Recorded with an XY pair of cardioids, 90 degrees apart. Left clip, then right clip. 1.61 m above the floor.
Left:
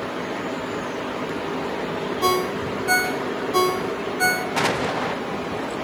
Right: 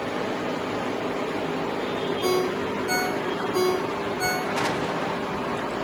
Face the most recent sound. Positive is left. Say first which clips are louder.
# left 3 dB
turn(degrees=45)